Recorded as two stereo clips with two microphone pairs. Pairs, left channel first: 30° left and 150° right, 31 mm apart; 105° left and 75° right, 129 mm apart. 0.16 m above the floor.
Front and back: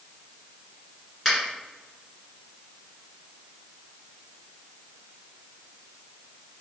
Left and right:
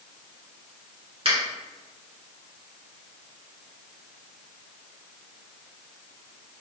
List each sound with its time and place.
1.2 s a finger snap: 75° right, 1.9 m